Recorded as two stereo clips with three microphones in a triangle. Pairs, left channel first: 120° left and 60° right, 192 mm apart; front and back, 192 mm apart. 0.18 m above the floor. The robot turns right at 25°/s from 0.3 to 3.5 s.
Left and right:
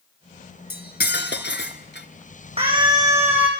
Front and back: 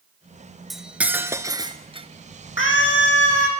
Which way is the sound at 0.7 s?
90° left.